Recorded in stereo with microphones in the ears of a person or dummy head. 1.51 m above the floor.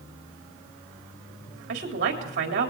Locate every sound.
1.7 s a woman speaking: 50° right (ahead or behind), 3.5 m